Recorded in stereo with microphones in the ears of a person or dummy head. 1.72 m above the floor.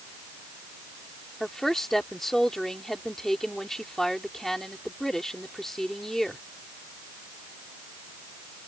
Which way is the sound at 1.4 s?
Centre (ahead or behind).